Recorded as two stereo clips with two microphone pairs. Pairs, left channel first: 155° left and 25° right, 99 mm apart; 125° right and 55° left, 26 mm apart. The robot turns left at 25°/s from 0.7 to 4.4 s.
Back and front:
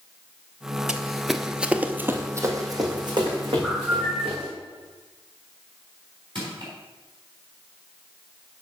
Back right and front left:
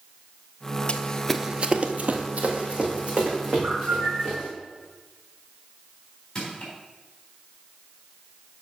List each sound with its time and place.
0.9 s running footsteps: 110° right, 0.7 m; by 4.5 s 20° right, 4 m
3.6 s a bird: 55° left, 3.5 m; by 4.4 s 35° left, 3.5 m
6.3 s crushing: 60° right, 3.5 m